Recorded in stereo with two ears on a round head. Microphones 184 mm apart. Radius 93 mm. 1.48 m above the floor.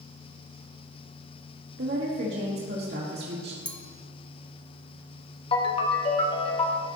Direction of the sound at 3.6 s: 5° left (ahead or behind).